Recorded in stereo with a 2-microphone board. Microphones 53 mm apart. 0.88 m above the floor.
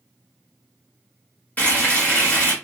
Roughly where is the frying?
Left.